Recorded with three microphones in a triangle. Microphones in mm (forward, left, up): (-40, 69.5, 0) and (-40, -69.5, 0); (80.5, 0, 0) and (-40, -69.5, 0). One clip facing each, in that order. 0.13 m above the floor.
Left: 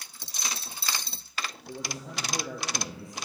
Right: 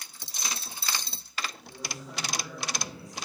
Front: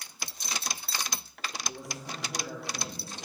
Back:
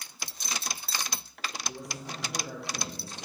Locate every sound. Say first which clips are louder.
1.7 s a man speaking: left 3 dB, even; 120° left, 3.5 m